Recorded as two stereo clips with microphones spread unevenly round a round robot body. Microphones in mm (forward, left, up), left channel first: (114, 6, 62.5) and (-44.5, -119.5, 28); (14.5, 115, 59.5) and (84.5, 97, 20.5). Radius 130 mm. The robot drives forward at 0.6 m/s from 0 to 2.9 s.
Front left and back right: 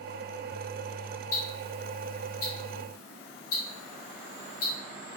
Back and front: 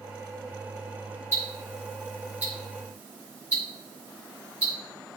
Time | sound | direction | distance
1.3 | ticking | 30° left | 4 m